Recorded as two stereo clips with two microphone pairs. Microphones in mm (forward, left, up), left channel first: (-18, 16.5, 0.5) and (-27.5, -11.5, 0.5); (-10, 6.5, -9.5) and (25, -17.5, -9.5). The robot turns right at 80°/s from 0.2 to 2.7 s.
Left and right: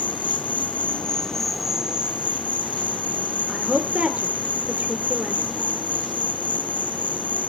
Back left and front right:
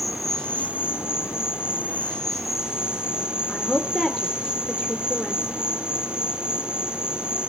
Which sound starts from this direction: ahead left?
An insect, at 0.0 s.